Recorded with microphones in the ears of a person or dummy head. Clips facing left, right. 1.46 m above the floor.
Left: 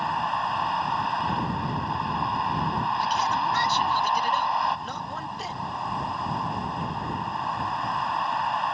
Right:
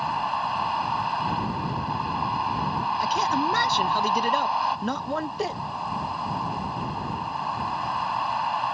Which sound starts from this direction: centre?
A vehicle, at 0.0 s.